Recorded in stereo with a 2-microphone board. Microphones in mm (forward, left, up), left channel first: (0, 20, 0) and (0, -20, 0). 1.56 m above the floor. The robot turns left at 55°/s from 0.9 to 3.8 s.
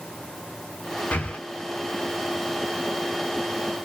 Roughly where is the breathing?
Left.